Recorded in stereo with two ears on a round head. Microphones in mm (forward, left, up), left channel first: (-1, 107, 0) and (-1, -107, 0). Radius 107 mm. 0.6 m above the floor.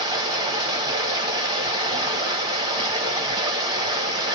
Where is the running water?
15° right (ahead or behind), 1.5 m.